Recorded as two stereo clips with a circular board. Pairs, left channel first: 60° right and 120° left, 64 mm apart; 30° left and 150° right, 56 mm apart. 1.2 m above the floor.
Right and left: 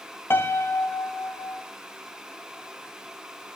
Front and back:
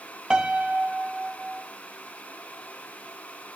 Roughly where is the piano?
Right.